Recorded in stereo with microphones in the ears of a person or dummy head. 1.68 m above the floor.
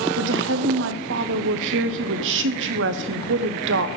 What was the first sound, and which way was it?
A woman speaking, 65° right (ahead or behind).